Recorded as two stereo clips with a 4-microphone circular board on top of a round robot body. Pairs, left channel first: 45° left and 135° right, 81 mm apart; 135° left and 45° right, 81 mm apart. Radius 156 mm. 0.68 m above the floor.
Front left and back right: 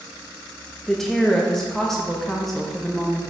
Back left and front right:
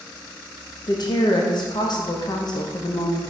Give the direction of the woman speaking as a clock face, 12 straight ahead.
8 o'clock.